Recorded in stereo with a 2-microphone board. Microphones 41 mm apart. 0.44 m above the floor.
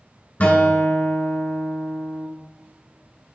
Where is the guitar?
45° left (ahead or behind), 2 m.